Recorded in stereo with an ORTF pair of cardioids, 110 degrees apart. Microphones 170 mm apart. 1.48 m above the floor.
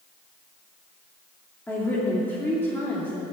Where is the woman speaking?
10° left, 3 m.